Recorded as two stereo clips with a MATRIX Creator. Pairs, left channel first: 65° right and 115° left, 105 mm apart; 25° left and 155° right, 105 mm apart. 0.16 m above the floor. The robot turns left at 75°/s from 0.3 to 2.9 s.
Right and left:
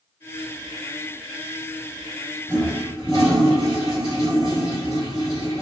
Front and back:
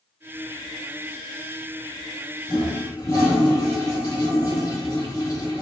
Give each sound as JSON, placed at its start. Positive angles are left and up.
{"t": 2.5, "sound": "a toilet flushing", "azimuth_deg": 5, "distance_m": 1.5}